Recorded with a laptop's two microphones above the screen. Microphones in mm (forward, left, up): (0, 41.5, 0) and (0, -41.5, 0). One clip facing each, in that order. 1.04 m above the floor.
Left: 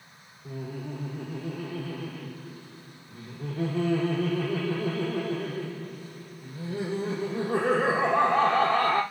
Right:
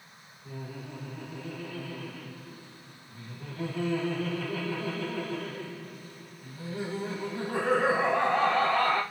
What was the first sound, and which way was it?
Laughter, 40° left (ahead or behind).